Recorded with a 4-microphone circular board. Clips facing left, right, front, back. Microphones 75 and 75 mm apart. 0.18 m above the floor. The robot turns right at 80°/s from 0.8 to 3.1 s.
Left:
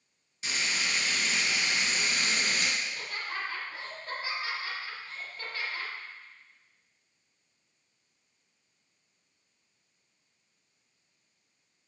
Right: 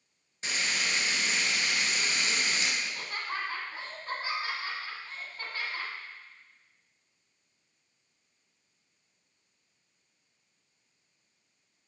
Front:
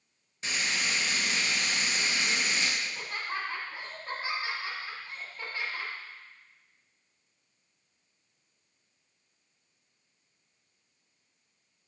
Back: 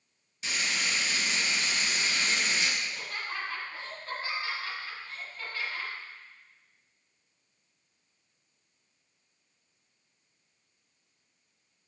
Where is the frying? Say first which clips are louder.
Even, even; 45° right, 1.1 m; by 2.7 s 110° left, 1.1 m.